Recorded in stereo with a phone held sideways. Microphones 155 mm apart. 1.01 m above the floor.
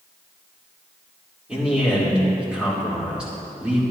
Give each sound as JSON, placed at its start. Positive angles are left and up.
{"t": 1.5, "sound": "a man speaking", "side_deg": -5, "distance_m": 2.5}